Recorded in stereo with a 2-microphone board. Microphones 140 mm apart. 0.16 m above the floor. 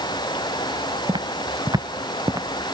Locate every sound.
0.0 s running water: 30° left (ahead or behind)
1.1 s footsteps: 35° right (ahead or behind); by 2.5 s 25° right (ahead or behind)